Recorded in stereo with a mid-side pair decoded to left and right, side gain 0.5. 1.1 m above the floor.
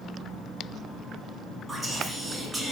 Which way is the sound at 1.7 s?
20° right.